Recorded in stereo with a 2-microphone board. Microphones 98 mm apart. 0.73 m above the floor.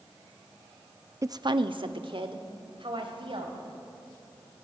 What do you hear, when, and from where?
1.2 s a woman speaking: 30° right (ahead or behind), 0.5 m; by 3.6 s 60° right (ahead or behind), 4 m